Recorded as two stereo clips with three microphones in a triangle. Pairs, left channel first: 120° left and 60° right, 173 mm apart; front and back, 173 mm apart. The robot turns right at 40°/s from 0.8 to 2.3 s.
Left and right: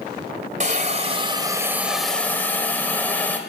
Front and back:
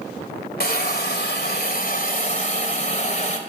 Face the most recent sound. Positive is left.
turn(degrees=40)